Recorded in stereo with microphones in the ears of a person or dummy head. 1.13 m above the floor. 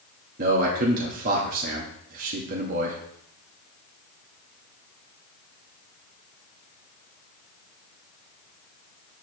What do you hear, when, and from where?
0.4 s a man speaking: 50° right (ahead or behind), 1.9 m